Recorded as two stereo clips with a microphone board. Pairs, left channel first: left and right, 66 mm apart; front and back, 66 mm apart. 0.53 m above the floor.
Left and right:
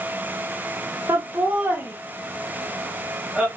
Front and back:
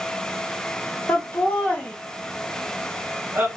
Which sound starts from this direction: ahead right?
Laughter, at 1.1 s.